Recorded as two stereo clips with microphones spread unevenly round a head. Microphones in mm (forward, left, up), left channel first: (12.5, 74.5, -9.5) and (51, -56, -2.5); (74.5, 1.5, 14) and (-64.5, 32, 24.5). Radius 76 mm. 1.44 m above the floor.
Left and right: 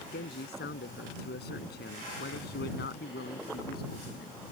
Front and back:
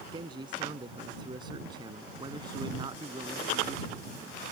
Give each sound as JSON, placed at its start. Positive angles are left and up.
{"t": 0.1, "sound": "a man speaking", "azimuth_deg": 110}